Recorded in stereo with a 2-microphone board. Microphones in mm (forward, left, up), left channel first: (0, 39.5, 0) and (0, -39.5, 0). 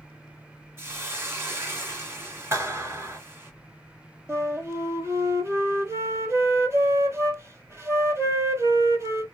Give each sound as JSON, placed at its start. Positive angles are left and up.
{"t": 0.8, "sound": "a hiss", "side_deg": -30, "distance_m": 1.8}
{"t": 2.5, "sound": "a clap", "side_deg": -35, "distance_m": 2.0}
{"t": 4.3, "sound": "a flute", "side_deg": -40, "distance_m": 0.8}